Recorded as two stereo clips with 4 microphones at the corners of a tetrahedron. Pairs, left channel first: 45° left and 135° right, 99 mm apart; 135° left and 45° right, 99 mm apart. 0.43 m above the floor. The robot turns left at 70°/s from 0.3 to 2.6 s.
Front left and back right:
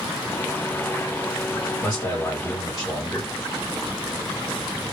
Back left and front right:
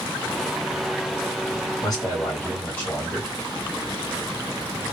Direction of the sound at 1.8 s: 130° left.